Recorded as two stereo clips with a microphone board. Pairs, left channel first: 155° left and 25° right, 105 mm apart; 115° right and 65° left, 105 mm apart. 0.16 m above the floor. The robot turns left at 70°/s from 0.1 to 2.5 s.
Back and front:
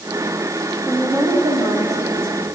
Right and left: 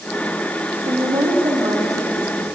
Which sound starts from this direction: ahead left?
A woman speaking, at 0.8 s.